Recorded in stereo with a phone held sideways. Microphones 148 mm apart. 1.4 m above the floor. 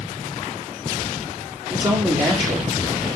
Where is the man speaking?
25° right (ahead or behind), 2 m.